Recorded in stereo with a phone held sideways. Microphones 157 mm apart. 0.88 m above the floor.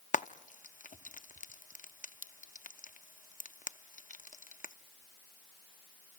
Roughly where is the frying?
Left.